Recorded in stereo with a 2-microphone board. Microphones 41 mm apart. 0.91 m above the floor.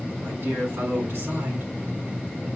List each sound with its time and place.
0.2 s a man speaking: 70° right (ahead or behind), 3.5 m